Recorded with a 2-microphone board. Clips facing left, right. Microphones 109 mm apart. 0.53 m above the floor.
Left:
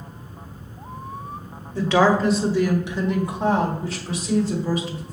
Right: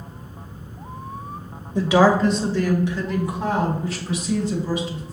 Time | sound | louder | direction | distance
1.8 | a woman speaking | right 2 dB | 15° right (ahead or behind) | 1.0 m